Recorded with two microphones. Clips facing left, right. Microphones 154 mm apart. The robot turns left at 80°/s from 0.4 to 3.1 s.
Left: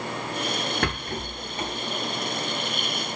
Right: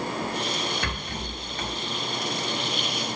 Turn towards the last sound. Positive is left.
turn(degrees=-95)